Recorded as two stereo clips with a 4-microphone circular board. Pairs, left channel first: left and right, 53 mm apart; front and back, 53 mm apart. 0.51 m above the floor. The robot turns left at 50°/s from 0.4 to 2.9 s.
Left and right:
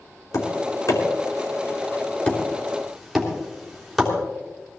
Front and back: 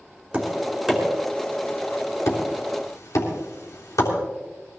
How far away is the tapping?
About 3.5 m.